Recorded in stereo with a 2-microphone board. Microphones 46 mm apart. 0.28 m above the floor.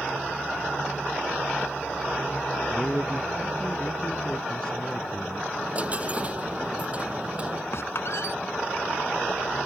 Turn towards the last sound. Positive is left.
turn(degrees=65)  # may be behind; listen again after turning